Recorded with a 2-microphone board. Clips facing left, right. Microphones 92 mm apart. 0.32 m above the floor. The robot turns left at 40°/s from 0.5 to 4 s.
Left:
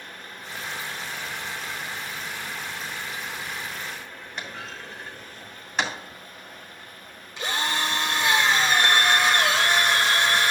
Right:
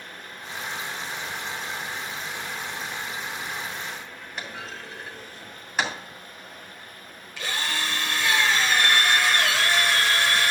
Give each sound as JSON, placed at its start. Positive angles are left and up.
{"t": 4.4, "sound": "a clunk", "side_deg": -5, "distance_m": 2.0}
{"t": 7.4, "sound": "a drill", "side_deg": 20, "distance_m": 1.4}